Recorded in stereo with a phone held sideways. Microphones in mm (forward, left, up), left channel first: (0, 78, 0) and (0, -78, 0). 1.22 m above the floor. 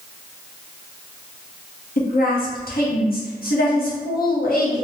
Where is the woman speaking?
70° left (ahead or behind), 0.9 m.